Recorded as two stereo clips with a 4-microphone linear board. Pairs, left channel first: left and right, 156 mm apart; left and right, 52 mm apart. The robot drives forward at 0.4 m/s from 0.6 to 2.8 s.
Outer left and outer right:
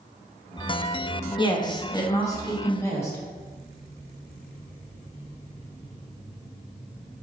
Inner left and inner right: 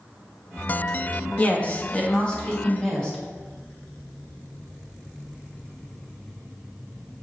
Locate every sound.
1.4 s a woman speaking: 30° left (ahead or behind), 0.5 m; by 3.2 s 15° left (ahead or behind), 1.0 m